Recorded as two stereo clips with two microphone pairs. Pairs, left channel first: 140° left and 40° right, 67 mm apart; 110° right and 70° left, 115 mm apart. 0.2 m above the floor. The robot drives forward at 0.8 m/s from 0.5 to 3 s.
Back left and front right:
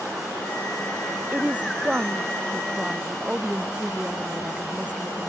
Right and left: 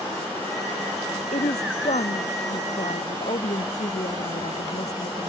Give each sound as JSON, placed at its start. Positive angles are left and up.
{"t": 1.3, "sound": "a woman speaking", "azimuth_deg": -110}